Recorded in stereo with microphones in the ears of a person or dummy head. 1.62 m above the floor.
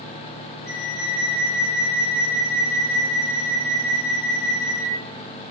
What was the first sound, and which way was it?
A flute, 60° left (ahead or behind).